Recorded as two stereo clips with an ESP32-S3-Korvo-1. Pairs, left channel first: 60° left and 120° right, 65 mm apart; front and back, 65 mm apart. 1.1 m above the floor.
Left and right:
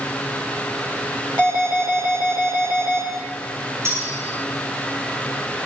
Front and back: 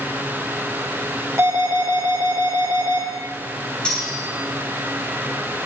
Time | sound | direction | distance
1.4 | an alarm | 135° right | 4 m
3.9 | cutlery clinking | 75° right | 6 m